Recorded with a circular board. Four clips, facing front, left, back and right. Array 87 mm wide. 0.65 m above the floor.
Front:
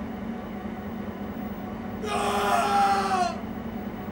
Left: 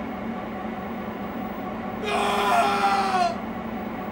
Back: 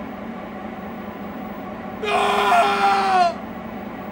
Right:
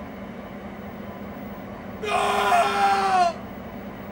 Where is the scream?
Straight behind, 1.0 m.